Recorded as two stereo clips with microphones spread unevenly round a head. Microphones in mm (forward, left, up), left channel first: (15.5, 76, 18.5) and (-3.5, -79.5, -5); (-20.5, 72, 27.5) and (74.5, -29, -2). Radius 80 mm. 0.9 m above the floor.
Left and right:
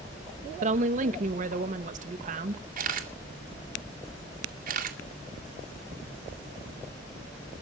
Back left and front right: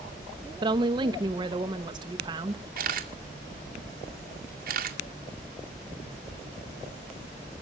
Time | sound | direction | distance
0.6 | a woman speaking | 90° right | 0.9 m
2.8 | a camera shutter | 65° right | 2 m